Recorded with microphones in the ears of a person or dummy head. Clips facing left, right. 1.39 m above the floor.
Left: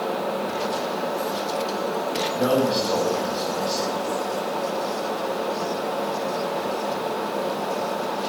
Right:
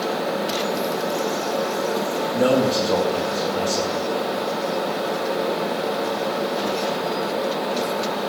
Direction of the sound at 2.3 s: 40° right (ahead or behind).